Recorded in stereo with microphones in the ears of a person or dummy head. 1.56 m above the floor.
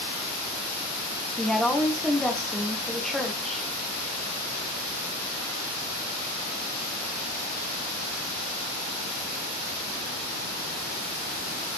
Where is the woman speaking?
Centre (ahead or behind), 0.6 m.